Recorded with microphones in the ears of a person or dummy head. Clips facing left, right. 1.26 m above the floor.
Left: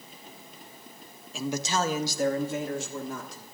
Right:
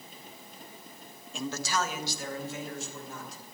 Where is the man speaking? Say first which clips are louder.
Left 3 dB; centre (ahead or behind), 0.6 m; by 3.5 s 65° left (ahead or behind), 1.8 m.